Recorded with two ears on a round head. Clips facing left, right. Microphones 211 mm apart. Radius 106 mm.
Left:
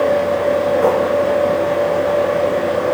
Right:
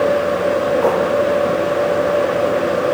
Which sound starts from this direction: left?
Writing, at 0.8 s.